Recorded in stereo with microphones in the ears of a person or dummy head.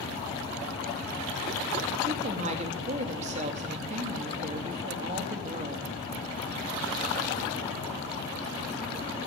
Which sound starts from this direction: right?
A woman speaking, at 2.1 s.